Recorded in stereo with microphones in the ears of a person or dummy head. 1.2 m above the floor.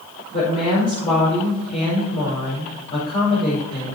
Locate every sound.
0.3 s a woman speaking: 35° left (ahead or behind), 5 m